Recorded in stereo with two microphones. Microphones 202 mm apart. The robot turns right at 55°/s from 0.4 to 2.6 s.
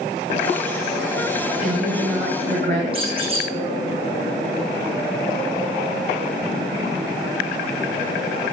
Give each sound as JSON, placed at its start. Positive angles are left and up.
{"t": 1.6, "sound": "a woman speaking", "azimuth_deg": -170, "distance_m": 1.9}
{"t": 2.9, "sound": "a squeak", "side_deg": -30, "distance_m": 7.0}